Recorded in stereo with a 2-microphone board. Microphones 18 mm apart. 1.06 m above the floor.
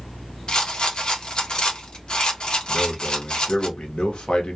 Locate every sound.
0.5 s a rattle: 50° left (ahead or behind), 0.8 m
2.7 s a man speaking: 70° left (ahead or behind), 0.9 m